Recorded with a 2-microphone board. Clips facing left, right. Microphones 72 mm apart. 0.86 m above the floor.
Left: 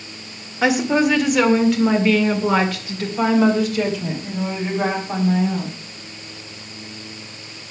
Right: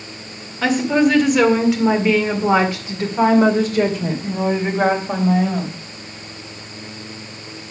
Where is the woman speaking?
10° left (ahead or behind), 2.5 m; by 5.8 s 60° right (ahead or behind), 3.5 m.